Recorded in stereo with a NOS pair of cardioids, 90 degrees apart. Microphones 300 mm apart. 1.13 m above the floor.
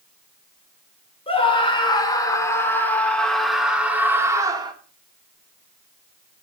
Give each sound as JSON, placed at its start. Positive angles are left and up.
{"t": 1.3, "sound": "a scream", "azimuth_deg": 20, "distance_m": 3.5}